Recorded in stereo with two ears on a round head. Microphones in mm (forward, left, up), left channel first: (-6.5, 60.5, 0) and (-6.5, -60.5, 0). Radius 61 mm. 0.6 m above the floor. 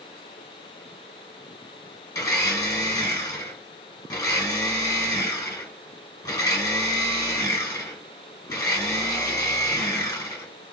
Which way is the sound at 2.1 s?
20° left (ahead or behind).